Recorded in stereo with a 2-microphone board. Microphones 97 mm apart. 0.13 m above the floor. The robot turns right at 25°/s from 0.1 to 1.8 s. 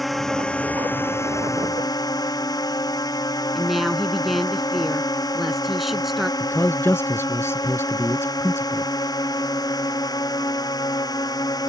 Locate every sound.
0.0 s a drone: straight ahead; by 11.7 s 45° left
3.5 s a woman speaking: centre (ahead or behind)
6.4 s a man speaking: 25° left (ahead or behind)